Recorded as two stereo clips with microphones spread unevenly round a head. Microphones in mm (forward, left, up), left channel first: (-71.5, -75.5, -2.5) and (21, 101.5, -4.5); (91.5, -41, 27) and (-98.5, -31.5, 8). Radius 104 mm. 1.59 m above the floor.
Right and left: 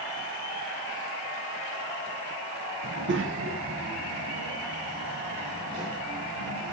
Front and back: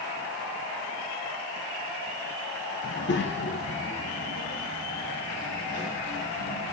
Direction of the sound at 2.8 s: 25° left.